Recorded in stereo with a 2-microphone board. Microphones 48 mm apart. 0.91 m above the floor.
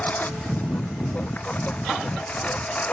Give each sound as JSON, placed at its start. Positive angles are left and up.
{"t": 0.0, "sound": "a lawn mower", "side_deg": 35}